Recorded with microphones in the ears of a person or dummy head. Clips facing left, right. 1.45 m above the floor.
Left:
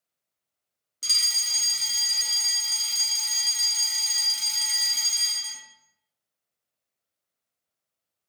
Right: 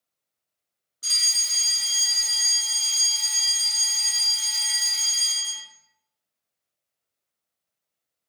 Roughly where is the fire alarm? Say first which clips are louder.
Even; left.